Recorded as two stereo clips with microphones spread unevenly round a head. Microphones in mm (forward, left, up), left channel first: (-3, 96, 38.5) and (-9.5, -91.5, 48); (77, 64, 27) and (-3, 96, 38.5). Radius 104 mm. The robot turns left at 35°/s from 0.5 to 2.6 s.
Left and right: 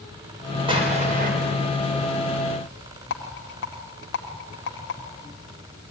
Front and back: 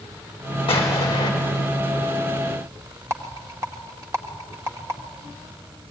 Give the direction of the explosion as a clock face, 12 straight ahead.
1 o'clock.